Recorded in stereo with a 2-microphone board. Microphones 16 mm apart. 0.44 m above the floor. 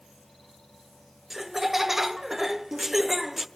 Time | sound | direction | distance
1.3 | laughter | 15° right (ahead or behind) | 0.8 m